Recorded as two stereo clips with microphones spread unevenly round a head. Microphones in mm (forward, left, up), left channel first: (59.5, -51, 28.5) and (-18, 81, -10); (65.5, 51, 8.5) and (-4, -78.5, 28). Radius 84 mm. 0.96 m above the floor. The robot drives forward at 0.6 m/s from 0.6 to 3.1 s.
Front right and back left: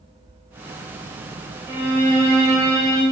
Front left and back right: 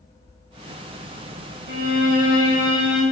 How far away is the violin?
About 1.4 m.